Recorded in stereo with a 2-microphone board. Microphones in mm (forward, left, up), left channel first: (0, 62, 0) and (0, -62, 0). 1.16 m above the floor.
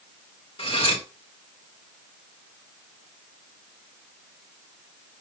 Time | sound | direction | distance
0.6 | cutlery clinking | 50° left (ahead or behind) | 2 m